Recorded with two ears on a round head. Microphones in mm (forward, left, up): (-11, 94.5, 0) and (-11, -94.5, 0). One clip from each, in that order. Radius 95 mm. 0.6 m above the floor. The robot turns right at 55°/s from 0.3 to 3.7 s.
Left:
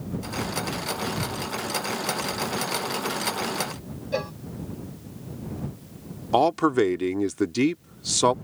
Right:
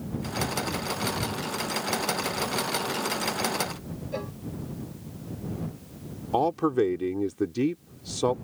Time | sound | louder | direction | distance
4.1 | a cowbell | left 6 dB | 45° left (ahead or behind) | ?
6.3 | a man speaking | left 4 dB | 55° left (ahead or behind) | ?